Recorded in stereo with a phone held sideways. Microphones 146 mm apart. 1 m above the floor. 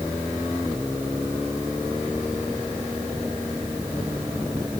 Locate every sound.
Only background noise.